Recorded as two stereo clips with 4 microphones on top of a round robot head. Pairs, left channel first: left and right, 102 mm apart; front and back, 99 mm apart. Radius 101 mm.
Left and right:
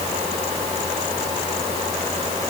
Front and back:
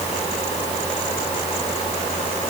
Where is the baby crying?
No baby crying in this recording.